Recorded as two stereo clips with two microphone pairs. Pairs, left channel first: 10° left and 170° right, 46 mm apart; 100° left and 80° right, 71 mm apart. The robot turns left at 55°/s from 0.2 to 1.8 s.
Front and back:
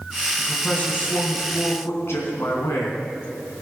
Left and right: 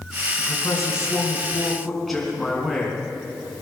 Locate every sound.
0.4 s a man speaking: 90° left, 3.5 m; by 3.0 s 10° left, 3.5 m